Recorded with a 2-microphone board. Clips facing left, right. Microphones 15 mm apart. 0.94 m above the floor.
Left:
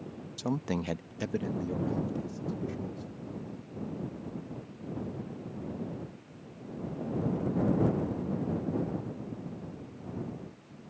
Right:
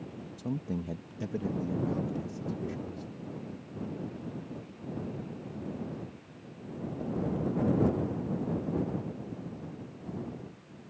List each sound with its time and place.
0.4 s a man speaking: 55° left (ahead or behind); by 3.1 s 5° right (ahead or behind)